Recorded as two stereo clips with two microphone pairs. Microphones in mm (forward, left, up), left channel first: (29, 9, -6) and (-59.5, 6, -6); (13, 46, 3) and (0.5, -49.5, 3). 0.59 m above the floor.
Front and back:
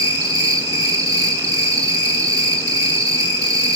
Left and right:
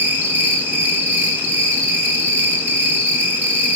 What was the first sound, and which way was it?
An insect, 160° right.